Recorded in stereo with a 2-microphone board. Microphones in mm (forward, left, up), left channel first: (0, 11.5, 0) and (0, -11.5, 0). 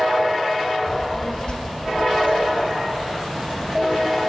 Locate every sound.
0.9 s a child speaking: 5° left (ahead or behind), 0.7 m; by 4.2 s 80° left, 3 m